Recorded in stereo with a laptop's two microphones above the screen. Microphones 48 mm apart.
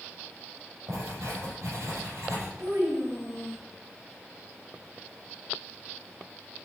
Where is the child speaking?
65° right (ahead or behind), 3.5 m.